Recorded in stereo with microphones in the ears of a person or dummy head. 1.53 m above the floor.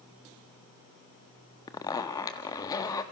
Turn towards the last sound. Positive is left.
turn(degrees=15)  # may be behind; listen again after turning